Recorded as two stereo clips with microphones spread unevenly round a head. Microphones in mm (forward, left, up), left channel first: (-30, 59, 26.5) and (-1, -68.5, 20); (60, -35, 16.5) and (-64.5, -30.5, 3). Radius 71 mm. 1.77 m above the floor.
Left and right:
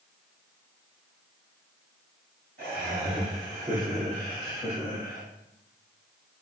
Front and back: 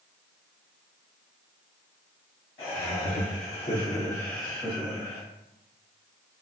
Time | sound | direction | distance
2.6 | laughter | 30° right | 1.7 m